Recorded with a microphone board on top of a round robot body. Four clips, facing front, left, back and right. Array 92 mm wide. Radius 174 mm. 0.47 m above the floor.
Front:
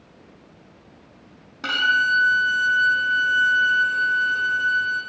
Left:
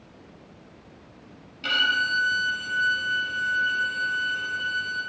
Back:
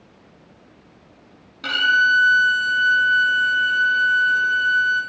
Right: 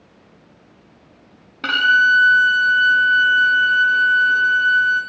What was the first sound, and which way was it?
A violin, 70° right.